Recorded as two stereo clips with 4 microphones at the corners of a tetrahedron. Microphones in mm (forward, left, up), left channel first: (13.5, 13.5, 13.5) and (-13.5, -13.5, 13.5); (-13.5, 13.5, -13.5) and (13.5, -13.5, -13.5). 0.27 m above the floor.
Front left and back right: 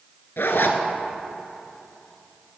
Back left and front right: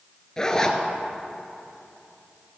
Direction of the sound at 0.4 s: 65° left.